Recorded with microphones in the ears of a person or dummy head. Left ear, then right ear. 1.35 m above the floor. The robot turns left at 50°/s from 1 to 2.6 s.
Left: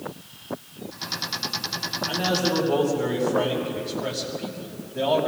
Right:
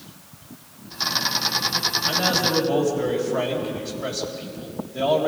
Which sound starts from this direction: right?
A man speaking, at 2.1 s.